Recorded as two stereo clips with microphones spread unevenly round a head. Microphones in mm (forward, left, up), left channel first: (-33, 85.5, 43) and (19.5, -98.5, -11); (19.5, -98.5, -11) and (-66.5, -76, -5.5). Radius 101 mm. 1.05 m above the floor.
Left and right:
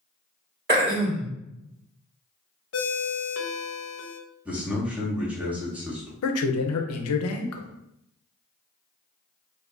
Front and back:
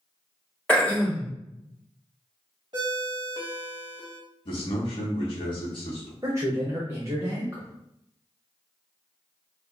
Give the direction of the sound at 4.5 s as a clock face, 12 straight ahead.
12 o'clock.